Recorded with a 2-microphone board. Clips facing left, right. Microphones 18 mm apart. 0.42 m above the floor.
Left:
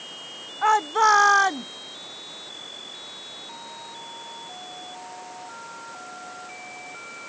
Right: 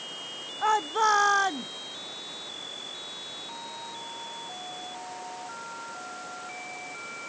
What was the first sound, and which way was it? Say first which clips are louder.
A shout: left 5 dB; 25° left (ahead or behind).